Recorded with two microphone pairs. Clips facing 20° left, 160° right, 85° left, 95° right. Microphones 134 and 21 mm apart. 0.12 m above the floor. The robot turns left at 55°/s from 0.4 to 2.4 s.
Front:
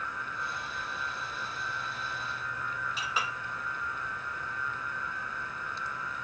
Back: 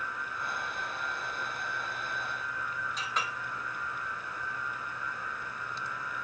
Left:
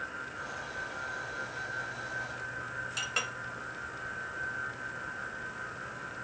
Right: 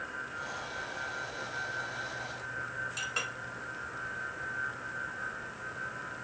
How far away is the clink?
About 0.7 m.